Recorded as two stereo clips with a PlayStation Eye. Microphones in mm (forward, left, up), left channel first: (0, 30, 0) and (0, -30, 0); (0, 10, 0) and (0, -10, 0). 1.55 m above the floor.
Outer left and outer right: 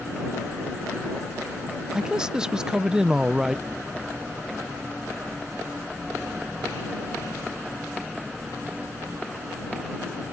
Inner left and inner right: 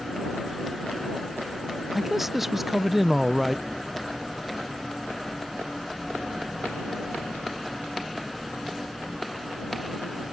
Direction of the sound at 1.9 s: 15° right (ahead or behind).